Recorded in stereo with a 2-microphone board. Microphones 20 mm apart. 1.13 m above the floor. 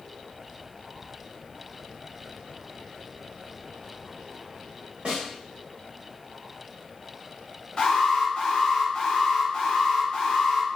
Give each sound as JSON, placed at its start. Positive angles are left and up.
{"t": 5.0, "sound": "a snare drum", "side_deg": -70, "distance_m": 1.4}
{"t": 7.8, "sound": "an alarm", "side_deg": 45, "distance_m": 0.9}